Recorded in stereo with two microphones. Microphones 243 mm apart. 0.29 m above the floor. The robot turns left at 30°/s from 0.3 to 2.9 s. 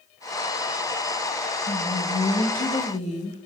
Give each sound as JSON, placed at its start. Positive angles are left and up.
{"t": 1.7, "sound": "a woman speaking", "azimuth_deg": 85, "distance_m": 1.1}